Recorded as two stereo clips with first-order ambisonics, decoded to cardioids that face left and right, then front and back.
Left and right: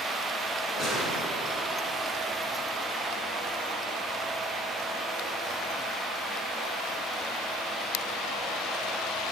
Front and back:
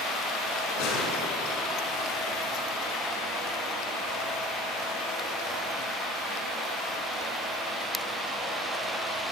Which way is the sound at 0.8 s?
10° right.